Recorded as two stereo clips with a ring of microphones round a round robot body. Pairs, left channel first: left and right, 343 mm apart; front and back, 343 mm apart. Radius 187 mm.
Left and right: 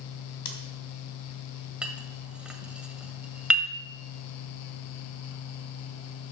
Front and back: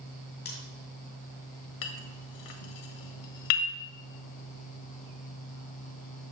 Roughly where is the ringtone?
I don't hear a ringtone.